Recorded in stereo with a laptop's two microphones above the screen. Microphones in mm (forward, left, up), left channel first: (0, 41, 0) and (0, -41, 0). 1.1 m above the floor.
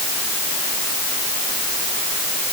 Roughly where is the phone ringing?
I don't hear a phone ringing.